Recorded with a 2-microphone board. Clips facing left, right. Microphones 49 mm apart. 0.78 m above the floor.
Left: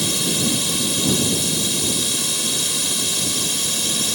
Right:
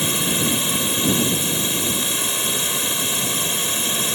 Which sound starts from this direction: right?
A drone, at 0.0 s.